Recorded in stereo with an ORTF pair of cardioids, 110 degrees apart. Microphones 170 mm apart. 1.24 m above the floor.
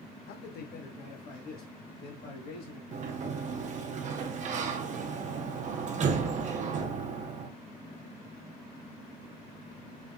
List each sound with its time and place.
0.3 s a man speaking: 70° left, 0.7 m; by 2.8 s 60° left, 2.5 m
2.9 s a sliding door: 45° right, 0.6 m